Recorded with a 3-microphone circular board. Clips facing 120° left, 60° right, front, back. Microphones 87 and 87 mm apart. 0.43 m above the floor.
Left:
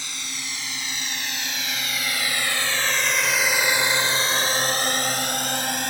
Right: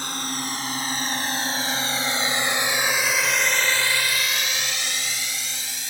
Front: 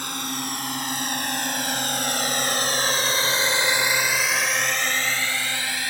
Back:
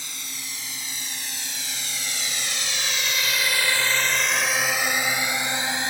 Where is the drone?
25° right; by 5.9 s 120° left.